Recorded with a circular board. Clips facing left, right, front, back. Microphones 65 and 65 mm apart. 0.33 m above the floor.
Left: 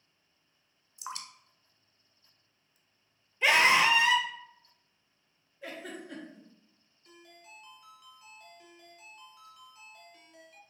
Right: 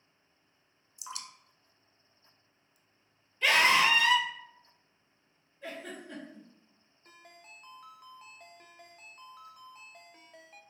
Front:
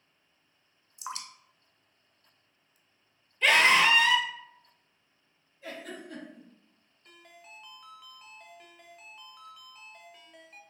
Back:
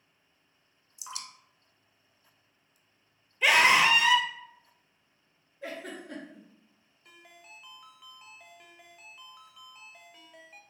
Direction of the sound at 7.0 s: 95° right.